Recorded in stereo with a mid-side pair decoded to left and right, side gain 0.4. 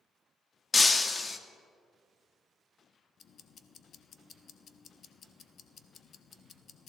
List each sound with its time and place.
0.7 s breaking glass: 30° left, 1.1 m
3.2 s ticking: 60° left, 1.0 m